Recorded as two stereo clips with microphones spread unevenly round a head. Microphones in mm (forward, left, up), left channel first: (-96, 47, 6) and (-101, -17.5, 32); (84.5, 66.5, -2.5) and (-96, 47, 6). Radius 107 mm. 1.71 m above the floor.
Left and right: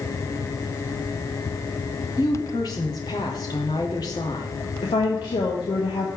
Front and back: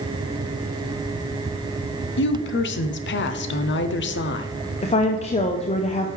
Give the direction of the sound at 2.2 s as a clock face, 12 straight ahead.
11 o'clock.